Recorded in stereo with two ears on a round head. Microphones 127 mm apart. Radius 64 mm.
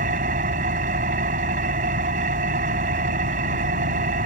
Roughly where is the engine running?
Right.